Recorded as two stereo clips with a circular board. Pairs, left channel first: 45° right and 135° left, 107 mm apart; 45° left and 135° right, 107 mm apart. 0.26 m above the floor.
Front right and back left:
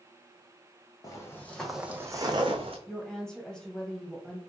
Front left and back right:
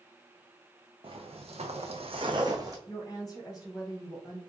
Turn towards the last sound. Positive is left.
turn(degrees=35)